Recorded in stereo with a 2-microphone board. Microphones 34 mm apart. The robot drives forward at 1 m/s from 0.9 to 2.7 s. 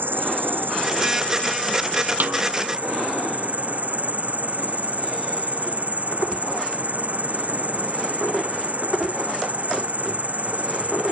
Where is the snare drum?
65° right (ahead or behind); by 2.4 s 55° right (ahead or behind).